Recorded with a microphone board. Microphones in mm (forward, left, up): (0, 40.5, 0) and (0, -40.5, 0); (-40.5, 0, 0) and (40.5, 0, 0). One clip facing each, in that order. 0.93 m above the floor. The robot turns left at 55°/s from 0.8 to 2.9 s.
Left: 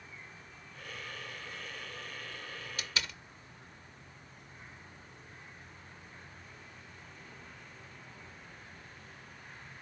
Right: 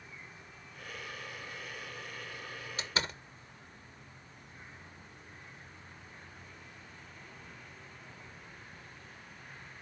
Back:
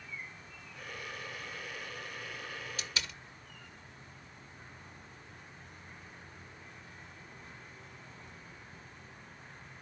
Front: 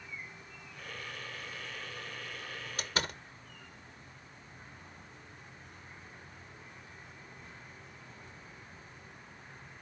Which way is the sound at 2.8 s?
30° right.